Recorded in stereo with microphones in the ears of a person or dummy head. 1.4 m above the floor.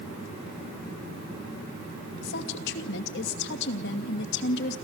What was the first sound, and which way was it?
A woman speaking, 70° left (ahead or behind).